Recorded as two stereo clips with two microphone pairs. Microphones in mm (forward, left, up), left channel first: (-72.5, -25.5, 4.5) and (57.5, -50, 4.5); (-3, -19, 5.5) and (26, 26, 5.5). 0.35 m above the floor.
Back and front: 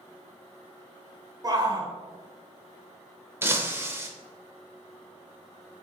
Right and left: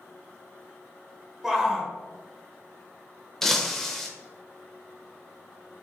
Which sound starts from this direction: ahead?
A shout, at 1.4 s.